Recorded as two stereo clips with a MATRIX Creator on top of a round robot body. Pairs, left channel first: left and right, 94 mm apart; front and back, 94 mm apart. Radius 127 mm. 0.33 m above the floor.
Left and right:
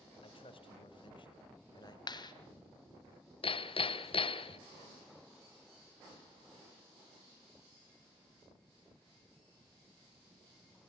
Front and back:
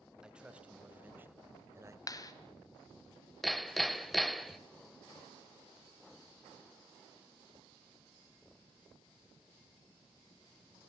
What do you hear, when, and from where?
0.2 s a man speaking: 100° left, 3 m; by 2.0 s 125° left, 2.5 m
2.1 s a clap: 50° left, 2.0 m
3.4 s hammering: 90° left, 1.2 m